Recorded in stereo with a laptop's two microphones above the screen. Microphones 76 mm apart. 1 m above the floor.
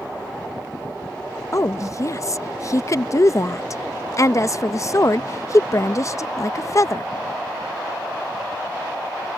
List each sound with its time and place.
1.5 s a woman speaking: 40° left (ahead or behind)